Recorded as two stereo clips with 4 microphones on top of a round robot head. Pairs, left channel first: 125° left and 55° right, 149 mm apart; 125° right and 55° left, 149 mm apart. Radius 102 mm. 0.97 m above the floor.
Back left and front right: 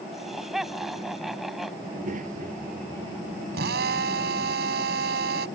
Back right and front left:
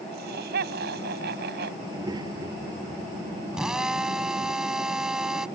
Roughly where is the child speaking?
Ahead.